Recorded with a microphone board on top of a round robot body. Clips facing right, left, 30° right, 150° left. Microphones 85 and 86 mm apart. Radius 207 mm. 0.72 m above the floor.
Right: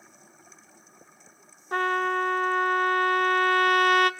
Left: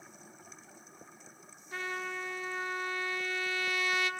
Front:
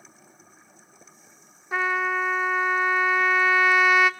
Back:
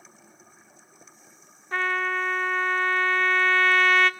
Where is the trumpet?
110° right, 1.0 m.